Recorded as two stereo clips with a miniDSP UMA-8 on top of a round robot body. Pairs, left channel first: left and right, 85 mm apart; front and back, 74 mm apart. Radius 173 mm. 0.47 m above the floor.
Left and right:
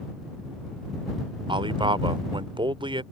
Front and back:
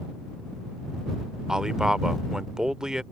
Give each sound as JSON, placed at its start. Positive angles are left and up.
{"t": 1.5, "sound": "a man speaking", "azimuth_deg": -100}